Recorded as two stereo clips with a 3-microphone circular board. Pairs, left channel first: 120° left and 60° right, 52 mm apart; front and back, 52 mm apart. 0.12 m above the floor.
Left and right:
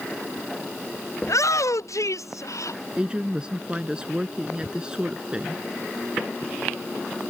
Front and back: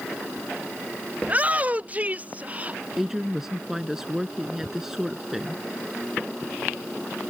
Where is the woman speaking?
105° right.